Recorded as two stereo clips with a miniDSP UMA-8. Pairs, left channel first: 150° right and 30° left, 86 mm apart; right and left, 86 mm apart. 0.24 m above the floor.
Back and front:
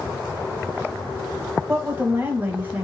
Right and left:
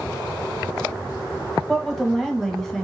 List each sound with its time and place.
1.7 s a woman speaking: 5° right, 1.0 m